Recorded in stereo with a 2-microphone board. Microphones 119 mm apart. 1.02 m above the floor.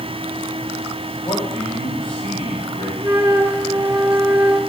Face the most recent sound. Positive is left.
turn(degrees=-20)  # may be behind; listen again after turning